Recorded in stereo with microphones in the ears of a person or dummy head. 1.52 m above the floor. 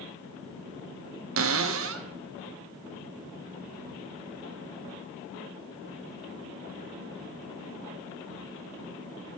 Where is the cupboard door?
65° right (ahead or behind), 0.7 m.